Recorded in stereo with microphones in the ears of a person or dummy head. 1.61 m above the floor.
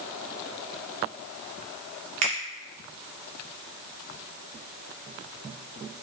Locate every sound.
2.2 s a finger snap: 30° right (ahead or behind), 0.6 m